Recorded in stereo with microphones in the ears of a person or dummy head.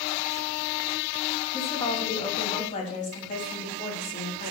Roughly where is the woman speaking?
Left.